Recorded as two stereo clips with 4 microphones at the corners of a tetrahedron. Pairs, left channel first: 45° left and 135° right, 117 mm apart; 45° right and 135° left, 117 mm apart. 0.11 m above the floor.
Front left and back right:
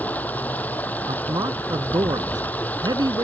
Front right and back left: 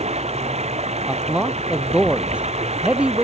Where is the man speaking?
155° right.